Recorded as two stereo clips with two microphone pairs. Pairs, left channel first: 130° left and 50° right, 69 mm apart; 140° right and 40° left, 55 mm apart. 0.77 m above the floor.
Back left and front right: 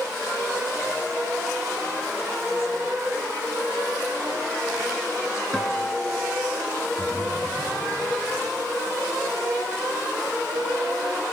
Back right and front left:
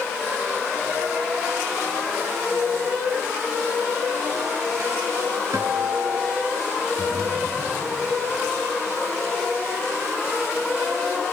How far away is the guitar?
About 1.6 m.